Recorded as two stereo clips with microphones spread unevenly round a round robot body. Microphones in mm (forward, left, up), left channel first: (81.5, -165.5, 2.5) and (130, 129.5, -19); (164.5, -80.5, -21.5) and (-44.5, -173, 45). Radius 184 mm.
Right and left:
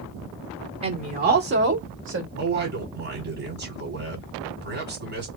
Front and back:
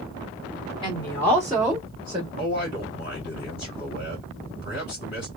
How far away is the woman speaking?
About 1.0 m.